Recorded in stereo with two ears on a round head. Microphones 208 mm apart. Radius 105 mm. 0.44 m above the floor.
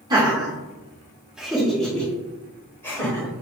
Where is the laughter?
20° right (ahead or behind), 0.9 m; by 3.3 s 10° left (ahead or behind), 1.7 m.